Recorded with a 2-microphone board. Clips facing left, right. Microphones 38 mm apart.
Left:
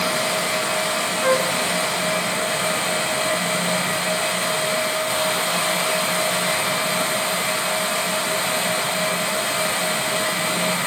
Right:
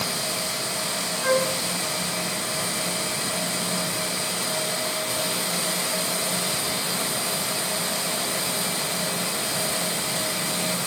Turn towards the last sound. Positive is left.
turn(degrees=15)  # may be behind; listen again after turning